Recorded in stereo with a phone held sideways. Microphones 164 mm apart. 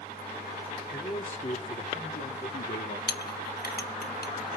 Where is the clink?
75° left (ahead or behind), 1.0 m.